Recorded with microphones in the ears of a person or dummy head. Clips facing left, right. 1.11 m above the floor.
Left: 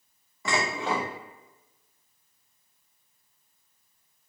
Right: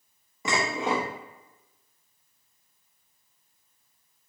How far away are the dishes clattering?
About 0.8 m.